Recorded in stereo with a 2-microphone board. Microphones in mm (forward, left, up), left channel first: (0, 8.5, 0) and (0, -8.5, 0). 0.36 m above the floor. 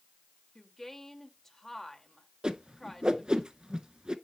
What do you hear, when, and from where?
0.6 s a woman speaking: 20° left (ahead or behind), 1.3 m
2.4 s a whoosh: 50° right (ahead or behind), 0.7 m